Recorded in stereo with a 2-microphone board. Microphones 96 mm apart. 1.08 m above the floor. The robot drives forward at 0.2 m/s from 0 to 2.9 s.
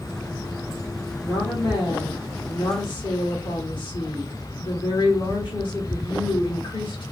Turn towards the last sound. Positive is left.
turn(degrees=55)  # may be behind; listen again after turning